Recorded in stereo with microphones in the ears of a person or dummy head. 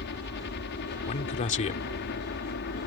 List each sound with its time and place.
0.0 s a helicopter: 60° left (ahead or behind)
1.1 s a man speaking: 45° left (ahead or behind)